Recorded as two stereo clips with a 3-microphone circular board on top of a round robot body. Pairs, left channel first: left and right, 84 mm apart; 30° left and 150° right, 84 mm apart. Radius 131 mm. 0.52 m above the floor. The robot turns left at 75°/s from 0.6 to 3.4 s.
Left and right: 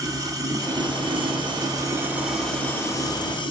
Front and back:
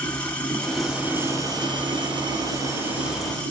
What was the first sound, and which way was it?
Running water, 45° right.